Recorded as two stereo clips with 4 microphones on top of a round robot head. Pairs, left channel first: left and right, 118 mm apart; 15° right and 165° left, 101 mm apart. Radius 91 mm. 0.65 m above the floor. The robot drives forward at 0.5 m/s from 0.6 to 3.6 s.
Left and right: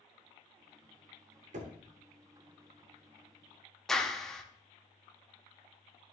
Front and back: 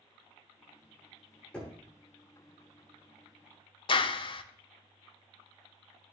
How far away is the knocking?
About 1.3 m.